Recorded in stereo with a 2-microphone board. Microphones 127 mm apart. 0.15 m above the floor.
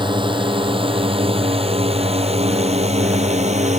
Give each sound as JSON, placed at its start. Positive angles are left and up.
{"t": 0.0, "sound": "a drone", "side_deg": -40}